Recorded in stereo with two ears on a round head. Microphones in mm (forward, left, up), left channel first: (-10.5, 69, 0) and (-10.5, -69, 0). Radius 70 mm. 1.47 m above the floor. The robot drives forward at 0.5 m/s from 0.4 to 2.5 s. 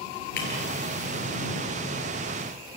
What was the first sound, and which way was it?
Breaking glass, 80° left.